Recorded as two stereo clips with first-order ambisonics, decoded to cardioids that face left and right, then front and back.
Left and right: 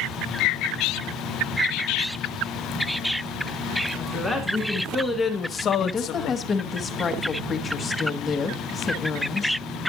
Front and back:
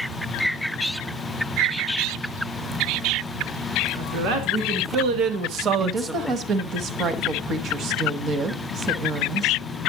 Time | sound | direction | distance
4.0 | a man speaking | 170° right | 2.5 m
5.8 | a woman speaking | 150° left | 1.2 m